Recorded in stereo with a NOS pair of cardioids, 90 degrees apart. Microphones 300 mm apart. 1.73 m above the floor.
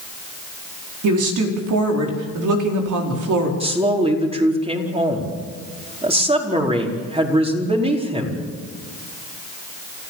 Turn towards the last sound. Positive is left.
turn(degrees=-20)